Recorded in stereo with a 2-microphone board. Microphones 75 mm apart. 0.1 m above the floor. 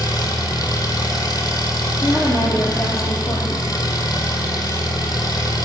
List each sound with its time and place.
0.0 s an engine running: 55° left (ahead or behind), 1.4 m
2.0 s a woman speaking: 40° left (ahead or behind), 2 m